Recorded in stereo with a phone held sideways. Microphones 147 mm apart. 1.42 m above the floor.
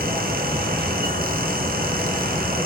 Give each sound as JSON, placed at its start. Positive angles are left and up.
{"t": 0.0, "sound": "a fan", "side_deg": -85, "distance_m": 1.0}